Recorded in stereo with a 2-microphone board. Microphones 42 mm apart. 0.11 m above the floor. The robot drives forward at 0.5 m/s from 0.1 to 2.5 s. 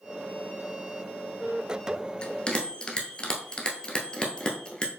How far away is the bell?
About 0.7 m.